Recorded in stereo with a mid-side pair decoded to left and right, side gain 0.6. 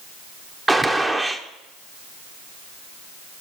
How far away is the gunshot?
About 1.2 m.